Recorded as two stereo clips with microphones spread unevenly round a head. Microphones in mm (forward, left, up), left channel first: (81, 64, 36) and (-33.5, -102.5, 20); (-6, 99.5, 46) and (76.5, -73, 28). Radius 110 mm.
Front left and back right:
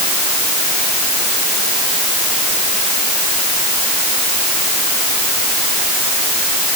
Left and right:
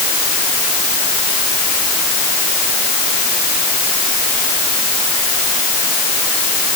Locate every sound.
Only background noise.